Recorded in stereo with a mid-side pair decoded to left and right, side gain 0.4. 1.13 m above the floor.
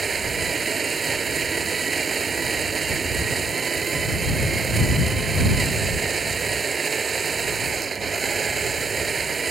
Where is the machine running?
40° right.